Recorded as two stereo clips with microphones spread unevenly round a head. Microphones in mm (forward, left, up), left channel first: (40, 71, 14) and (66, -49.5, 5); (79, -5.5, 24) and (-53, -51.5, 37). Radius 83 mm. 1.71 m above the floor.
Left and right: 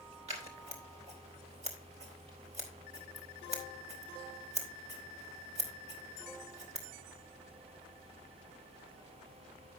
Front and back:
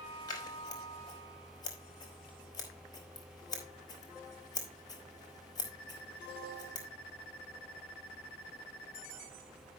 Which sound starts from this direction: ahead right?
Scissors, at 0.3 s.